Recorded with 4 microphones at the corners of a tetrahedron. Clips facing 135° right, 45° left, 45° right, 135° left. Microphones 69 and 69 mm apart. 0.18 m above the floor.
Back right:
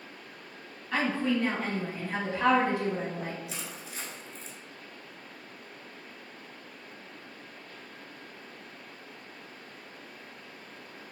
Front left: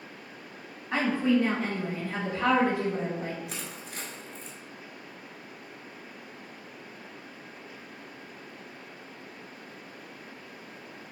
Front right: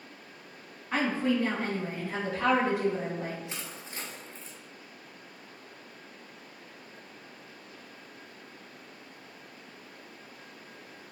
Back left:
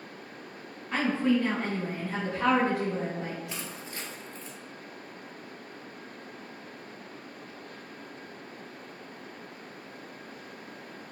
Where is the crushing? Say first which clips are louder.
Front left 1 dB, back left 2 dB; 15° left, 0.9 m.